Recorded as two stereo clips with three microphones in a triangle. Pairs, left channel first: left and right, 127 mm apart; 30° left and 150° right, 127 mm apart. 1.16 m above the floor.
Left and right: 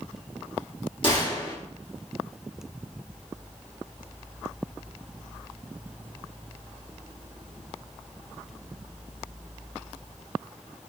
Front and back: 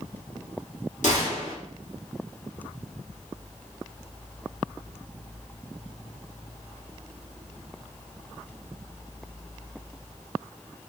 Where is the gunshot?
45° left, 1.5 m.